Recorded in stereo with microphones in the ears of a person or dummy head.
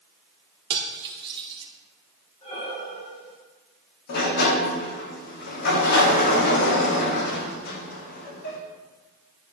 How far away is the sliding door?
About 1.1 m.